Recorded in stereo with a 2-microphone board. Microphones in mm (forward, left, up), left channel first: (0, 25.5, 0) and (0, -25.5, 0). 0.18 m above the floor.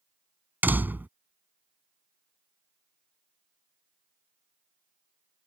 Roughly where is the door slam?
Right.